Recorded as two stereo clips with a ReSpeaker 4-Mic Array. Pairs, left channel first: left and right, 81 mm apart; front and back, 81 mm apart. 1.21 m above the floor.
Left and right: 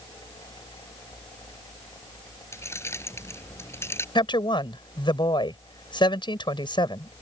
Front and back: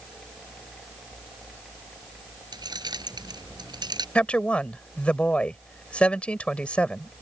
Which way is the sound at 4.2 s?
75° left.